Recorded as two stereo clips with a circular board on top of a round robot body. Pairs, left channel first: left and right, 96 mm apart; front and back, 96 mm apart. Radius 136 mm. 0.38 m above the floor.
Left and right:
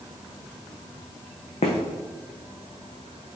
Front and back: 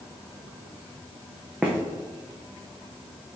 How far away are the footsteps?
About 1.8 m.